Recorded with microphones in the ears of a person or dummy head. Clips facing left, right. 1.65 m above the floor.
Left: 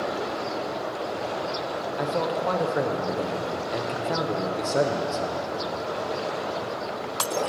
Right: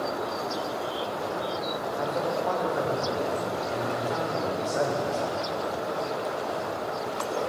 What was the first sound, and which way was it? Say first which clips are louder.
A man speaking: left 2 dB; 50° left (ahead or behind).